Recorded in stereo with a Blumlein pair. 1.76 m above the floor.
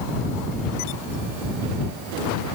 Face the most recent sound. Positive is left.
No sound to turn to.